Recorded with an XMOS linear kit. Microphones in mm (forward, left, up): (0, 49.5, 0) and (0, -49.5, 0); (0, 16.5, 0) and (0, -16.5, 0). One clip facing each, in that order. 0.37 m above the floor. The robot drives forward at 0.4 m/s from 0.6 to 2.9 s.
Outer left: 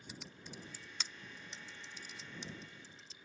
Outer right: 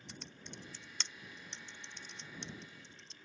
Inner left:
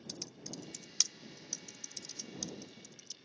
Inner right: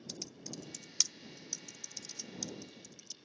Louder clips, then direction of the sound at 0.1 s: Outer left 1 dB, even; 5° left (ahead or behind).